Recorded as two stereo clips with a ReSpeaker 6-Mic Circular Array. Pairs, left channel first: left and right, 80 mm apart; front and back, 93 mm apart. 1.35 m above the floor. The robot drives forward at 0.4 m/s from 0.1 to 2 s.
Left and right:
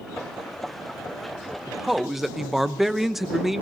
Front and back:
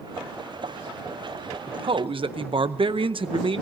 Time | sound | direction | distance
1.7 | a man speaking | 175° right | 0.6 m